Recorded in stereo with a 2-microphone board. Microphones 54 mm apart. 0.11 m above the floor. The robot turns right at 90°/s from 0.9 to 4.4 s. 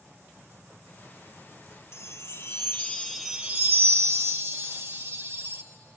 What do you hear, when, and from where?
1.9 s a chime: 65° left, 0.7 m; by 5.6 s 70° right, 0.7 m